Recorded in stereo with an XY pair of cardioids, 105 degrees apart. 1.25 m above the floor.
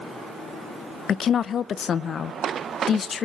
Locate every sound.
1.1 s a woman speaking: 50° left, 0.6 m